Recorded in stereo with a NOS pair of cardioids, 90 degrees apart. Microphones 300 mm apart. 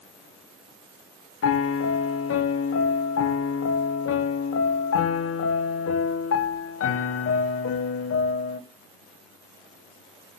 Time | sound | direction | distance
1.4 | a piano | 50° left | 1.7 m